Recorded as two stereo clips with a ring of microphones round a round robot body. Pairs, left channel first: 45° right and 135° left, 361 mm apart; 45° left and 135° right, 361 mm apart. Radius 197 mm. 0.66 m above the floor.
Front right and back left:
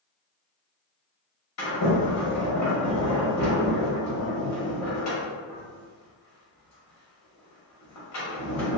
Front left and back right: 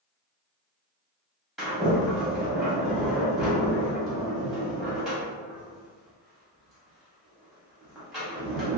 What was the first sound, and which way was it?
A sliding door, 45° right.